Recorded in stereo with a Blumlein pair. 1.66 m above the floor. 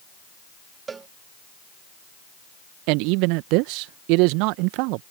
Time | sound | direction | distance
0.9 | a cowbell | 20° right | ?
2.9 | a man speaking | 45° right | ?